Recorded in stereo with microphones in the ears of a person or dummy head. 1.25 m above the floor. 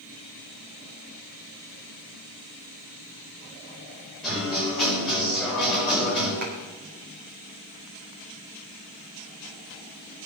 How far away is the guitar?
About 8.5 m.